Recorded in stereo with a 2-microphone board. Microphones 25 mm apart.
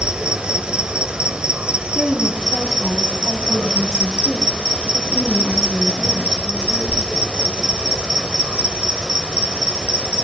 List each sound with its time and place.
0.0 s an insect: 35° right (ahead or behind), 1.1 m
1.9 s a woman speaking: 20° right (ahead or behind), 6.5 m